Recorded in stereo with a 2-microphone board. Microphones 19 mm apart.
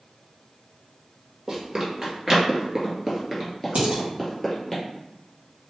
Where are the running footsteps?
35° right (ahead or behind), 1.6 m; by 4.8 s 10° left (ahead or behind), 1.6 m.